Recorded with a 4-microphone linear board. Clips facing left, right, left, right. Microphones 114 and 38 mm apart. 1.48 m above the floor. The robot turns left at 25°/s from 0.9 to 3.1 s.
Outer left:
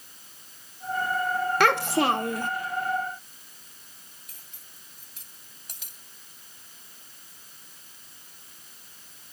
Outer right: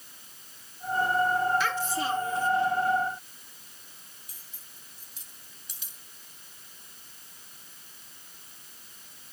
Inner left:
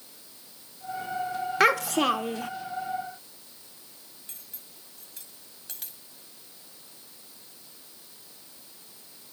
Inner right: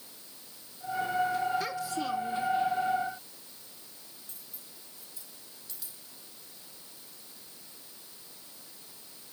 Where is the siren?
I don't hear a siren.